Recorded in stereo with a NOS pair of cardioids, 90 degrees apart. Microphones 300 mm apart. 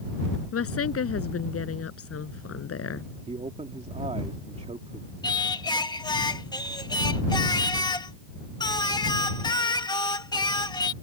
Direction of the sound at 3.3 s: 20° right.